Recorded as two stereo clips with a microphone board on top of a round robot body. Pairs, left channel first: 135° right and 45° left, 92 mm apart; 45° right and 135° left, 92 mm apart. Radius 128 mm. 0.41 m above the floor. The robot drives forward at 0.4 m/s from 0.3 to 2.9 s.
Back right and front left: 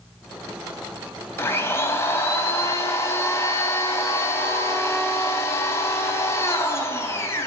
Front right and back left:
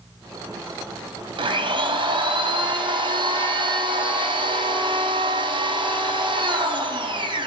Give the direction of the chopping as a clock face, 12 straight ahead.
No chopping in this recording.